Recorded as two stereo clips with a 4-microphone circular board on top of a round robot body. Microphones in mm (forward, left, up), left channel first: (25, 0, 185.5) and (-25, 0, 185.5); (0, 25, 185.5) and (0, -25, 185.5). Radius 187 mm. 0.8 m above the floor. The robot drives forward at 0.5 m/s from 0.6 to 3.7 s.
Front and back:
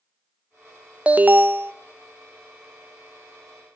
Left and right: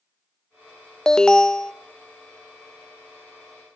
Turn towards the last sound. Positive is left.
turn(degrees=175)